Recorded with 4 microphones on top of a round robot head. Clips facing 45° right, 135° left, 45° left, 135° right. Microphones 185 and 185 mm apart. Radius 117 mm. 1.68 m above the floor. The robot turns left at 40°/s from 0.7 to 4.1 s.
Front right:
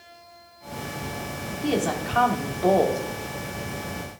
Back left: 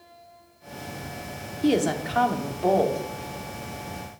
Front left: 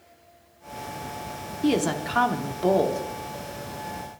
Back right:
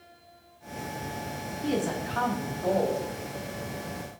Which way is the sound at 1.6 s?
75° left.